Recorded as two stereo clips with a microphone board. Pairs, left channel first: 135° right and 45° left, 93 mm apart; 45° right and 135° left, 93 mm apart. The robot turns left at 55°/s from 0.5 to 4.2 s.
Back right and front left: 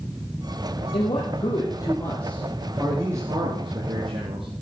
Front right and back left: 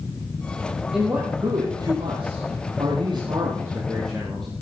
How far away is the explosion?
No explosion in this recording.